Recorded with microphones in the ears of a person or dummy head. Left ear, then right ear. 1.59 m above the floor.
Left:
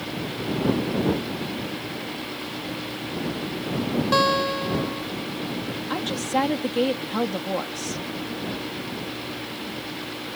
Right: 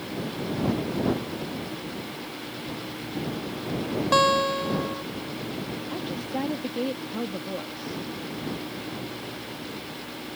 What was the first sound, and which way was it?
A guitar, 10° right (ahead or behind).